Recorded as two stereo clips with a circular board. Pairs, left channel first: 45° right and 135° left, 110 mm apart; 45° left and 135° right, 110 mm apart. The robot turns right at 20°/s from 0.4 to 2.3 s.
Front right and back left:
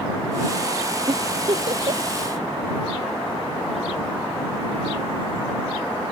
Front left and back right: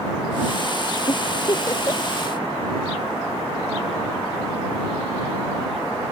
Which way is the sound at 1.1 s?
95° left.